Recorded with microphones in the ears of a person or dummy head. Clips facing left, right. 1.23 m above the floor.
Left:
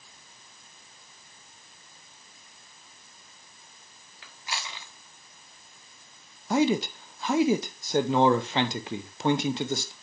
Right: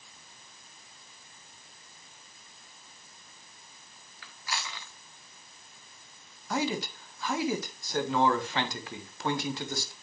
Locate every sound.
4.2 s chewing: 20° left (ahead or behind), 1.1 m
6.5 s a man speaking: 20° left (ahead or behind), 0.5 m